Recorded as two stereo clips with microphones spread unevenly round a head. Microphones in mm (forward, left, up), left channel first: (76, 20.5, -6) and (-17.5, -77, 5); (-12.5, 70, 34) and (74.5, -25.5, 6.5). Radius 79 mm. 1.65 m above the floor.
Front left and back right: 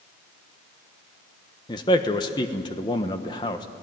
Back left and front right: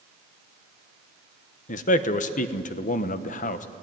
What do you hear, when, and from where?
1.7 s a man speaking: 115° left, 1.1 m